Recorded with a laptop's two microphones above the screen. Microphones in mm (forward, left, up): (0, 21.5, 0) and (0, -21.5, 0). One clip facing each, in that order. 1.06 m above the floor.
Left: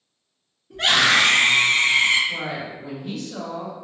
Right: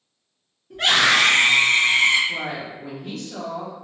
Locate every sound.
0.7 s a scream: 5° right (ahead or behind), 1.9 m; by 2.2 s 40° right (ahead or behind), 1.6 m
2.3 s a woman speaking: 45° right (ahead or behind), 0.7 m